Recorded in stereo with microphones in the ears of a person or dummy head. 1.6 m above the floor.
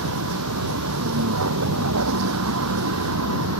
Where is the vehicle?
80° right.